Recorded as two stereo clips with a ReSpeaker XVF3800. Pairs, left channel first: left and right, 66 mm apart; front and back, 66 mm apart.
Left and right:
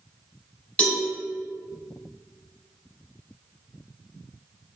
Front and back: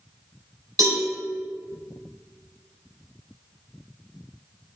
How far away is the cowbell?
About 1.5 m.